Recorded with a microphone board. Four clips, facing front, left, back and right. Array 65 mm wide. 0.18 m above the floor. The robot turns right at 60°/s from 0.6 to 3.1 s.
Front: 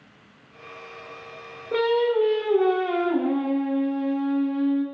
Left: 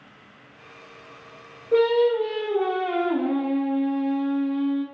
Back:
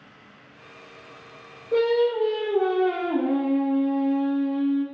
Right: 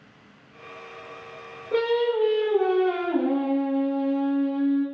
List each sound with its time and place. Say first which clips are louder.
1.7 s singing: left 4 dB, even; 20° right, 0.6 m; by 4.8 s 60° left, 0.6 m